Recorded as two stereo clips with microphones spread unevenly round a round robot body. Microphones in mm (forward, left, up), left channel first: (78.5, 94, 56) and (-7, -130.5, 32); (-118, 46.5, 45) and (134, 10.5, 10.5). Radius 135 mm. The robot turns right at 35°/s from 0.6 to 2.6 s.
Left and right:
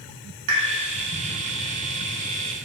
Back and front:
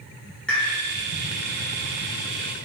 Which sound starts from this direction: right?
A pop, at 0.5 s.